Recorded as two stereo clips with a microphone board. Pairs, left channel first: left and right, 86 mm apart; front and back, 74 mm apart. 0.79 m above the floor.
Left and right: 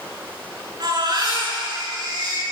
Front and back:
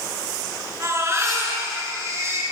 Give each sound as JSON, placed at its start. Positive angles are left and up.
{"t": 0.8, "sound": "a baby crying", "azimuth_deg": -130, "distance_m": 9.0}